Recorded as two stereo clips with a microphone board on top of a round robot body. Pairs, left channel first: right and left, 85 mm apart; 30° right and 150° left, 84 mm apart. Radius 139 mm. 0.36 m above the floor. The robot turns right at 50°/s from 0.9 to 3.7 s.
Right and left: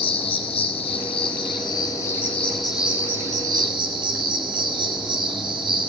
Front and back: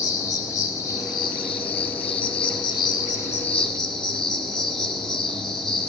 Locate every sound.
0.0 s an insect: 85° right, 0.8 m; by 5.9 s 55° left, 0.8 m